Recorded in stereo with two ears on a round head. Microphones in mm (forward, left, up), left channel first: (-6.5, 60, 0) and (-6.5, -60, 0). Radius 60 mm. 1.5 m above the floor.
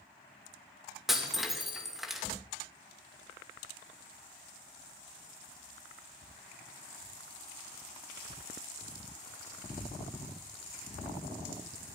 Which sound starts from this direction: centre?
Breaking glass, at 1.1 s.